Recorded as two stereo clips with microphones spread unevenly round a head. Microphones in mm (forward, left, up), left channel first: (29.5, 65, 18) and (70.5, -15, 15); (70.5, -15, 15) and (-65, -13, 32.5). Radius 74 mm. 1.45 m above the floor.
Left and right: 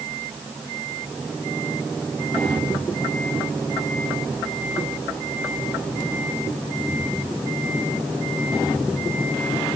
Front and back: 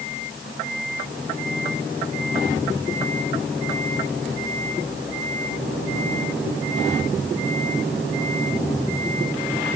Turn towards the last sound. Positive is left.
No sound to turn to.